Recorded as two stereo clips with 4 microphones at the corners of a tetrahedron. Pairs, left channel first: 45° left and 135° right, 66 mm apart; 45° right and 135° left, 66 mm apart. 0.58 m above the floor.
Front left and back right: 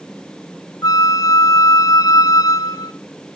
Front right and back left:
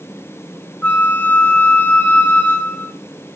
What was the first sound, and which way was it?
A flute, 20° left.